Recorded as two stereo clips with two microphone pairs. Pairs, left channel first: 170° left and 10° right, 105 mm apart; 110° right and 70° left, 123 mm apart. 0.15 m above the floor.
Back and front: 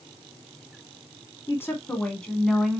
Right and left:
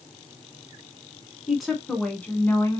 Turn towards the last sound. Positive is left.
turn(degrees=-95)